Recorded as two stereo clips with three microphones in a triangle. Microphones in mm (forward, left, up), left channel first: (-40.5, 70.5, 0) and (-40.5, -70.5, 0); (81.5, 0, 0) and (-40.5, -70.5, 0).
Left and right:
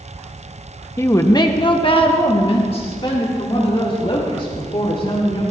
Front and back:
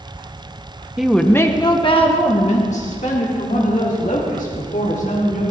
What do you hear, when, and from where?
1.0 s a woman speaking: 135° left, 0.7 m; by 5.4 s 45° left, 3.5 m